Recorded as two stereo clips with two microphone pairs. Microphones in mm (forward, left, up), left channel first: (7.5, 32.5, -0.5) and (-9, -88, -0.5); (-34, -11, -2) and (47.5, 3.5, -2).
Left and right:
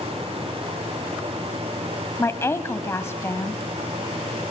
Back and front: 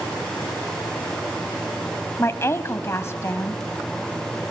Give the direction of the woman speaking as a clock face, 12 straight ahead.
7 o'clock.